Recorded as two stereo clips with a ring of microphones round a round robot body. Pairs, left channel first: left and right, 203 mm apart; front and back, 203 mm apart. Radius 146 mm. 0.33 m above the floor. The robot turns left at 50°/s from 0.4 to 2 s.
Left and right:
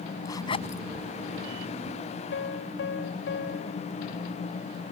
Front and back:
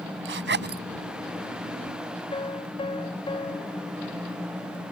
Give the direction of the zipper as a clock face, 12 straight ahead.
6 o'clock.